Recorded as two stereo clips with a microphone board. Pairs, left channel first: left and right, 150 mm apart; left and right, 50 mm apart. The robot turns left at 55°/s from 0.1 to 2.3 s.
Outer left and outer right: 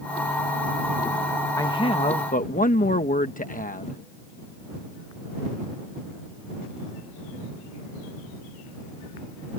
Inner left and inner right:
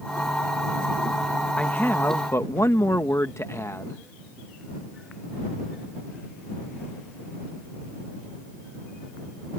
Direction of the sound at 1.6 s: 160° left.